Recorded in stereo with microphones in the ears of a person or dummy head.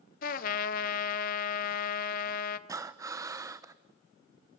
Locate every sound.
0.2 s a trumpet: 40° left (ahead or behind), 0.9 m
2.7 s breathing: 5° right (ahead or behind), 0.8 m